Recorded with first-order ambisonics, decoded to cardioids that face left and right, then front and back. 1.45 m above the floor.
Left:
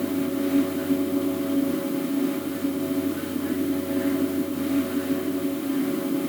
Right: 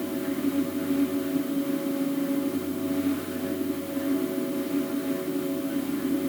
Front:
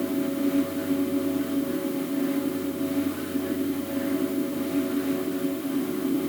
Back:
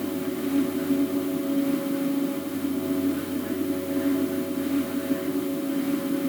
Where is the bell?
I don't hear a bell.